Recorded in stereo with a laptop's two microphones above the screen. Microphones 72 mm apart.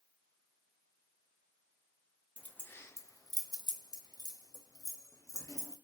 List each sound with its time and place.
2.4 s keys jangling: 20° left (ahead or behind), 0.6 m; by 5.7 s 55° left (ahead or behind), 1.4 m